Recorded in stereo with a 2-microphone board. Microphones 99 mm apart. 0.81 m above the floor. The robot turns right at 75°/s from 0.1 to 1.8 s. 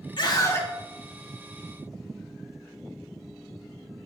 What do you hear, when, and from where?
0.2 s a scream: 120° left, 1.9 m; by 0.7 s 155° left, 1.9 m